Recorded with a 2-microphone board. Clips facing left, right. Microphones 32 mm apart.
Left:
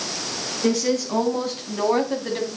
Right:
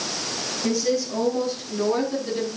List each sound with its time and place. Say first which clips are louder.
0.6 s a woman speaking: left 2 dB; 55° left (ahead or behind), 6 m; by 2.5 s 65° left (ahead or behind), 4.5 m